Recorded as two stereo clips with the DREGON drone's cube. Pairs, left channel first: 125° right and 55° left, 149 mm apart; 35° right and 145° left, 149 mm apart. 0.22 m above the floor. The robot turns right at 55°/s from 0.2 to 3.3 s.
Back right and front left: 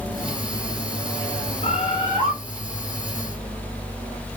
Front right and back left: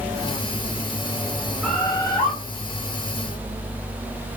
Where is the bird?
115° right, 2.0 m; by 2.3 s 75° right, 2.0 m.